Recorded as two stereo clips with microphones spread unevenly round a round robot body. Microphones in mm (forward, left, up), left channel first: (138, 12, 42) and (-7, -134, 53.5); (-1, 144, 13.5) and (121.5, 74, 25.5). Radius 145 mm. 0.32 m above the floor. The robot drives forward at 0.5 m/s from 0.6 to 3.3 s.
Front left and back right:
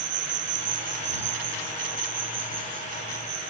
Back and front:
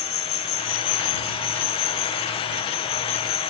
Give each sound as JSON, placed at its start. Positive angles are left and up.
{"t": 0.0, "sound": "an insect", "azimuth_deg": 175}